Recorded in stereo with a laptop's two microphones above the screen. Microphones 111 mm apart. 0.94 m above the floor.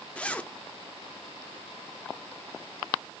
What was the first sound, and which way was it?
A zipper, 10° left (ahead or behind).